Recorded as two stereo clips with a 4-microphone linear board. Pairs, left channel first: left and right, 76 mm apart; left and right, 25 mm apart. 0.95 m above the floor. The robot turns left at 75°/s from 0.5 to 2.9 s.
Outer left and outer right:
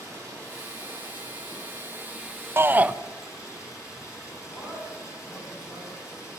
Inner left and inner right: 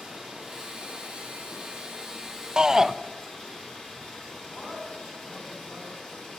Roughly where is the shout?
Right.